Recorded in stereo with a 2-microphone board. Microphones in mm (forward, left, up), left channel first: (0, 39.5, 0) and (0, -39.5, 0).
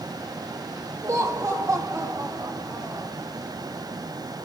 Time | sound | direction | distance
1.0 | laughter | 40° right (ahead or behind) | 6 m